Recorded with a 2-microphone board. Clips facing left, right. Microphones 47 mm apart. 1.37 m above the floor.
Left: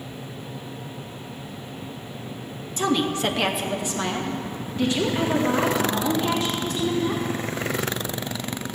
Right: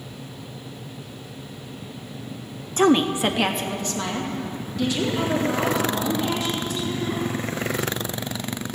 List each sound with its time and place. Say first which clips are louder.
2.8 s a woman speaking: right 5 dB; 45° right (ahead or behind), 0.7 m; by 7.2 s 40° left (ahead or behind), 4 m